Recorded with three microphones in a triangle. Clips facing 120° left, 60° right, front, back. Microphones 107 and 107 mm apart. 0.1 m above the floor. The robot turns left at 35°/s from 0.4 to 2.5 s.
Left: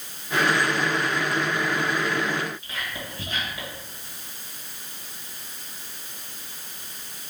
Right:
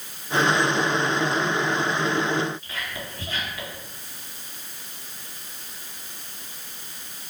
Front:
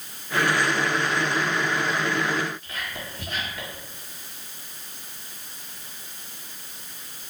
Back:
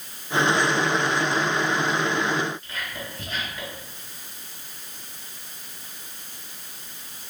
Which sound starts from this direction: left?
Whispering, at 2.6 s.